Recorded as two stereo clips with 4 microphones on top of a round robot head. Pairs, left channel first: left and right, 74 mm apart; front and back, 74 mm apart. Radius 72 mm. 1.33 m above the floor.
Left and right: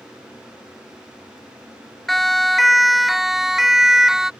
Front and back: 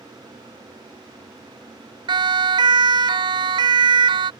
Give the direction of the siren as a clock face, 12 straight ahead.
6 o'clock.